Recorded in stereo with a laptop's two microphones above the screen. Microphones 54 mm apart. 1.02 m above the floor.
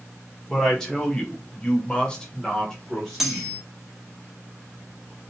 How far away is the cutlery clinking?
About 0.7 m.